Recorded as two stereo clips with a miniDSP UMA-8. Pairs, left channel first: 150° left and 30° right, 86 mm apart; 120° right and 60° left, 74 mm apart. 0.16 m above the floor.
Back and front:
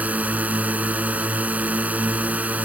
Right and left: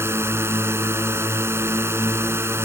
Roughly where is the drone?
Ahead left.